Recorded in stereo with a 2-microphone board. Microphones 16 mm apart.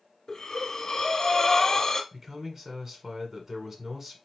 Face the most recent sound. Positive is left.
turn(degrees=-25)  # may be behind; listen again after turning